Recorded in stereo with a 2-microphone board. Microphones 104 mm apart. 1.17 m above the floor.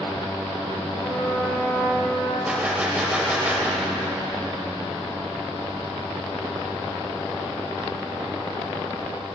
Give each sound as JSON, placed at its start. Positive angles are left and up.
{"t": 1.0, "sound": "a trumpet", "side_deg": 40, "distance_m": 4.0}
{"t": 2.5, "sound": "a gunshot", "side_deg": -15, "distance_m": 1.8}